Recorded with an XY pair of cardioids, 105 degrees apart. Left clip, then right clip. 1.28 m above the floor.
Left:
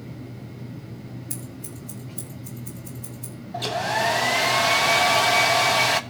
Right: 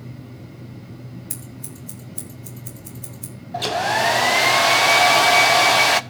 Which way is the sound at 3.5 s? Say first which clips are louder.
Right 4 dB; 35° right.